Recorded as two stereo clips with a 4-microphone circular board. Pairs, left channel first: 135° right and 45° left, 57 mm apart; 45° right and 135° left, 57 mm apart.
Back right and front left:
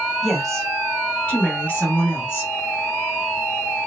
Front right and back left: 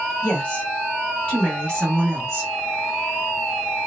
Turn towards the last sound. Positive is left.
turn(degrees=-125)